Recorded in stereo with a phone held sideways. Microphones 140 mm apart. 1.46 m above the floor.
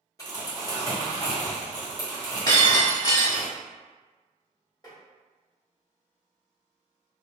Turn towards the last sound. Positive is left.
turn(degrees=30)  # may be behind; listen again after turning